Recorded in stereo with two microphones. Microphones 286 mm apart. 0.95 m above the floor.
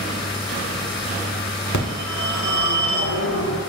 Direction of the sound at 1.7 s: 75° left (ahead or behind).